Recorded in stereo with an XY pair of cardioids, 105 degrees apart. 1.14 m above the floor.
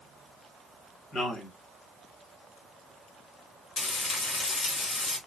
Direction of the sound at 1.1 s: 50° left.